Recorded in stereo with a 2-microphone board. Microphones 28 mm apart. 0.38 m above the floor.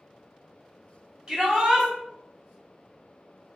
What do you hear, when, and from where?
1.3 s a shout: 30° right (ahead or behind), 2.0 m